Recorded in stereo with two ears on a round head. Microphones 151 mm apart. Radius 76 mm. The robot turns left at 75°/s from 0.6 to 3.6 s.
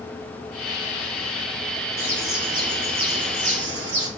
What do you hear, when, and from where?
2.0 s a bird: 20° left, 4 m; by 4.1 s 100° right, 4 m